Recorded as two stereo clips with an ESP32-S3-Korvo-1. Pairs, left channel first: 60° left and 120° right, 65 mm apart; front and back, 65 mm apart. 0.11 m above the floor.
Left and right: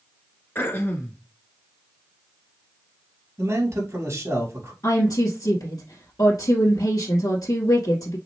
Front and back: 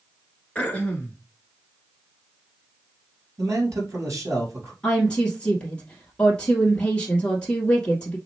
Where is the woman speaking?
65° left, 3 m.